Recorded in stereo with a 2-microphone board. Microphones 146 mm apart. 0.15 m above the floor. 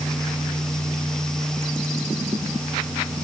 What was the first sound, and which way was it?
Only background noise.